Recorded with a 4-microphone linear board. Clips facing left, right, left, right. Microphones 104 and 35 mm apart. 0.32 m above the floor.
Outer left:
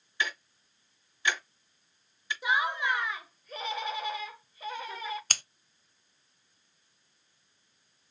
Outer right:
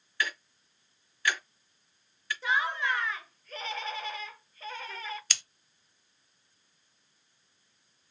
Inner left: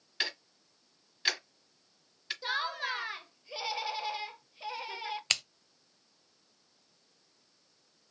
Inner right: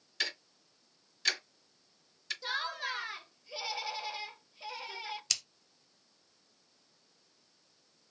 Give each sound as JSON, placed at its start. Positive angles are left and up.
{"t": 0.2, "sound": "ticking", "side_deg": 20, "distance_m": 1.7}
{"t": 2.4, "sound": "laughter", "side_deg": 15, "distance_m": 0.9}
{"t": 5.3, "sound": "scissors", "side_deg": 50, "distance_m": 0.5}